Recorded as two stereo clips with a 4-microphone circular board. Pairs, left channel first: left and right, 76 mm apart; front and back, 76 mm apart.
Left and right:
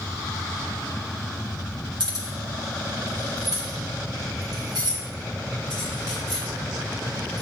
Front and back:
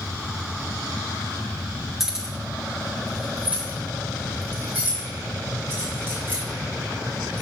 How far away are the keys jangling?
About 2.0 m.